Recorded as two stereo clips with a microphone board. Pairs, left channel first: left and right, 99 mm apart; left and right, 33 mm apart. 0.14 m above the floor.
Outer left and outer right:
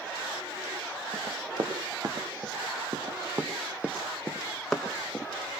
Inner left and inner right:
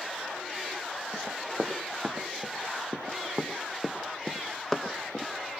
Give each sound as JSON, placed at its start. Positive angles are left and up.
{"t": 1.1, "sound": "running footsteps", "side_deg": -55, "distance_m": 3.0}